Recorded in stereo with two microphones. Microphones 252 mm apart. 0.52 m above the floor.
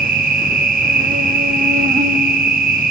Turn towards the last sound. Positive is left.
turn(degrees=-35)  # may be behind; listen again after turning